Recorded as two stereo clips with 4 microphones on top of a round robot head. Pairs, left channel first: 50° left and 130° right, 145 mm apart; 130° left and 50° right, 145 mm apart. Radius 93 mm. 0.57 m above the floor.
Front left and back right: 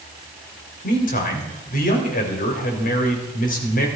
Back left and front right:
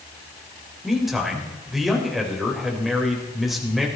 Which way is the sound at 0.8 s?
35° left.